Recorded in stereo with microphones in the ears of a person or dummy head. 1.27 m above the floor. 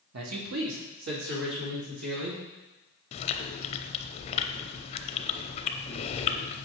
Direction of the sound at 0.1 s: 80° right.